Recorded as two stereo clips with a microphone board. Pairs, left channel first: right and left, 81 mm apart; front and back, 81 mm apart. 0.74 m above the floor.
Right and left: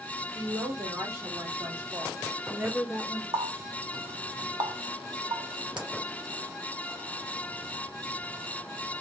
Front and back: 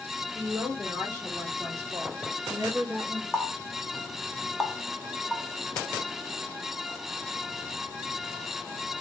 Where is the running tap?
85° left, 0.8 m.